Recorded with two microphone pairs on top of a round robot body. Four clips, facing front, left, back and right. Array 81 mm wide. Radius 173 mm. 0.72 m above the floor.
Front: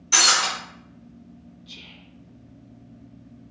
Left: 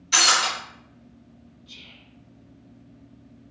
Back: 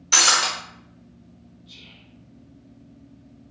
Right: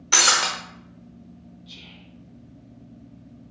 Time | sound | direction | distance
0.1 | breaking glass | 105° right | 1.1 m
1.7 | whispering | 30° right | 1.0 m